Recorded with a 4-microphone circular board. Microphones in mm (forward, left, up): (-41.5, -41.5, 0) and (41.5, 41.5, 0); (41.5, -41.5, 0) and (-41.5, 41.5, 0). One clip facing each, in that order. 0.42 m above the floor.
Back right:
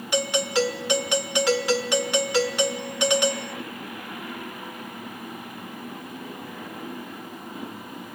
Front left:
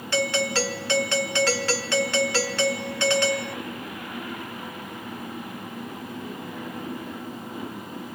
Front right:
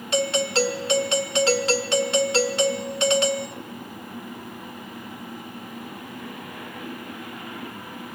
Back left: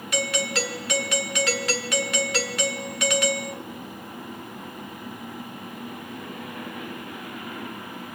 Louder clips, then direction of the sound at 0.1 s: Back right 1 dB, front right 5 dB; 75° right.